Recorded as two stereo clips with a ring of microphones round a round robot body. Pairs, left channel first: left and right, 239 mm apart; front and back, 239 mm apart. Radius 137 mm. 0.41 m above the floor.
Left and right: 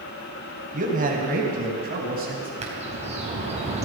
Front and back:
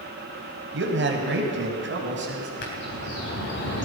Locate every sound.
0.7 s a man speaking: 145° right, 2.5 m
2.6 s a bird: 30° right, 3.5 m